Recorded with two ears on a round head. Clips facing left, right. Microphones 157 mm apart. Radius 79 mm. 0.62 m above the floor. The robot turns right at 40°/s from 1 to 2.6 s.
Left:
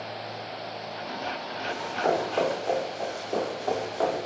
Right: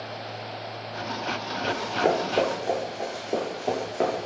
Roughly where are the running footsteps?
Right.